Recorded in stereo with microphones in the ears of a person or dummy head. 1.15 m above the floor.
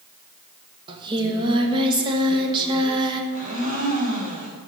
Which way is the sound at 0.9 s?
25° right (ahead or behind).